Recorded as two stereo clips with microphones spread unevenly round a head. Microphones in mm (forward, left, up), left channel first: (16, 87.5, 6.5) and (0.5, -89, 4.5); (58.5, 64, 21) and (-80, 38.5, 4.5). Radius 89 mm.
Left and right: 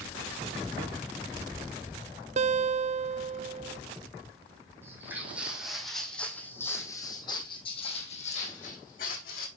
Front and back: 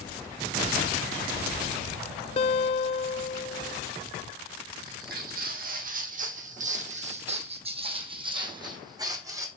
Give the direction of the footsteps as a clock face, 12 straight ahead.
6 o'clock.